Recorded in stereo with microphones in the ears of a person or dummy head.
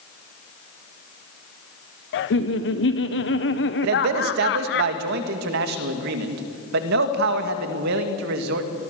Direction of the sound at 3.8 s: 70° right (ahead or behind).